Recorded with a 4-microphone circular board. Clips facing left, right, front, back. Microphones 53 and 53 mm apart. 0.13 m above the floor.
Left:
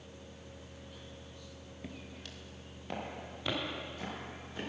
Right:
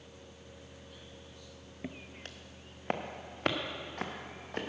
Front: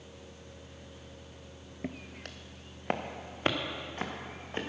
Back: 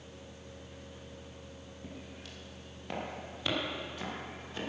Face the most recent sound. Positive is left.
turn(degrees=-55)